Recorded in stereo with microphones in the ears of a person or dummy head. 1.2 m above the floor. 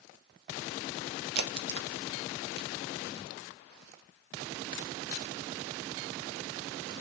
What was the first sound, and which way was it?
A crack, 60° right (ahead or behind).